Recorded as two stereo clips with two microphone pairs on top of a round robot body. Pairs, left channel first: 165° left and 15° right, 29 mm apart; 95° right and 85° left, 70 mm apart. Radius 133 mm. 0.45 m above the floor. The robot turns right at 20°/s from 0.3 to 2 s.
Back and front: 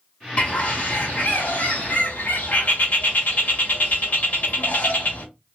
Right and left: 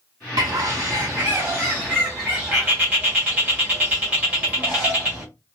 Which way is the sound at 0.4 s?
120° left.